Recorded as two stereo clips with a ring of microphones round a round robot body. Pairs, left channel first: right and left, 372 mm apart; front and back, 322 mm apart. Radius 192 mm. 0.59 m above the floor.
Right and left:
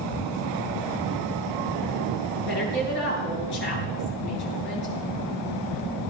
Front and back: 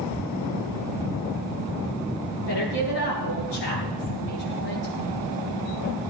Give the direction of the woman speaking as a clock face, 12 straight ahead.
1 o'clock.